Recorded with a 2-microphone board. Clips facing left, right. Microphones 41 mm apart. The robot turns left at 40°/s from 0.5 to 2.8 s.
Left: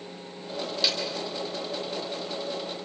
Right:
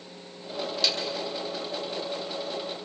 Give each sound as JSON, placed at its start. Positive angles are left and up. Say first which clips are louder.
{"t": 0.8, "sound": "a snare drum", "louder": "even", "side_deg": 5, "distance_m": 6.0}